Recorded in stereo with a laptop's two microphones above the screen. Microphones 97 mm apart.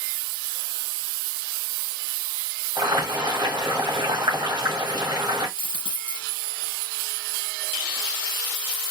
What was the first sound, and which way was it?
Boiling, 55° right (ahead or behind).